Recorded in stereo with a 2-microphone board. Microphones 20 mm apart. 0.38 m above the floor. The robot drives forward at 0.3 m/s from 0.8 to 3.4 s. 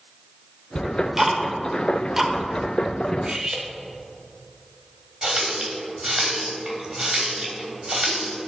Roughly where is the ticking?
Centre.